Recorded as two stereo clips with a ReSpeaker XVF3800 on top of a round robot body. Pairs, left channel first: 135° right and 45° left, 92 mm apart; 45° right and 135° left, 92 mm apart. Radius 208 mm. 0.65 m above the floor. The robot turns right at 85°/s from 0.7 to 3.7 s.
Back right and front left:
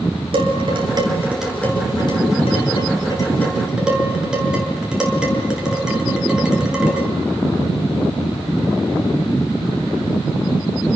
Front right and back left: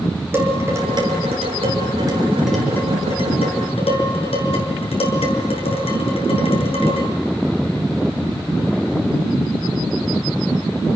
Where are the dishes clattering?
70° left, 7.5 m; by 7.1 s 35° right, 7.5 m.